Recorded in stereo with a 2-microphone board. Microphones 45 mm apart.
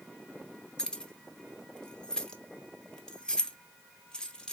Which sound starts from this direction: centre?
Keys jangling, at 0.8 s.